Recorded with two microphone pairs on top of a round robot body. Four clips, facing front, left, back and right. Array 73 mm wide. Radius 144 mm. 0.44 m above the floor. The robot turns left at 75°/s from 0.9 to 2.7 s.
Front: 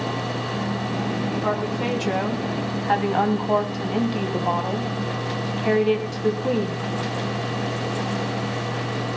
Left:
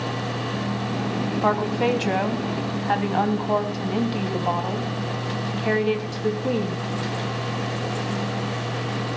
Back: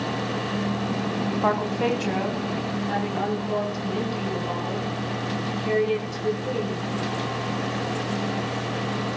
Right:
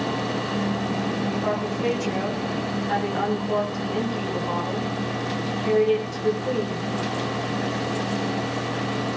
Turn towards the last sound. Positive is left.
turn(degrees=35)